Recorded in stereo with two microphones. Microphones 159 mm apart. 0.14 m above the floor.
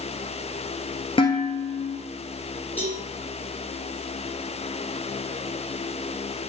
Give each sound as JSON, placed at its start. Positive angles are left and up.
{"t": 1.2, "sound": "dishes clattering", "side_deg": 35, "distance_m": 1.7}
{"t": 2.8, "sound": "a cowbell", "side_deg": 15, "distance_m": 3.0}